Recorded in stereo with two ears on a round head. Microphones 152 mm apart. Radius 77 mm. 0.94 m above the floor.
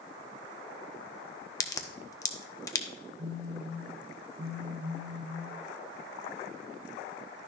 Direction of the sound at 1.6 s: 20° left (ahead or behind).